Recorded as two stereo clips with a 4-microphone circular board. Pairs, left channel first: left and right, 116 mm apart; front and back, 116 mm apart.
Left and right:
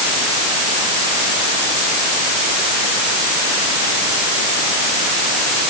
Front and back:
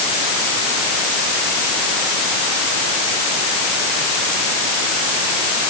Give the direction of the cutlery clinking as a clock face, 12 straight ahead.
I don't hear cutlery clinking.